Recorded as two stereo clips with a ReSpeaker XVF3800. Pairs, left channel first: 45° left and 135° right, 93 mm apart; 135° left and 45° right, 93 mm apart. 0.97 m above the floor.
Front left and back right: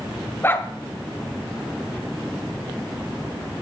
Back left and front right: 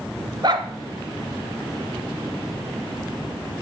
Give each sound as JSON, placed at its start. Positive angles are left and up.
{"t": 0.4, "sound": "a dog barking", "azimuth_deg": -15, "distance_m": 1.1}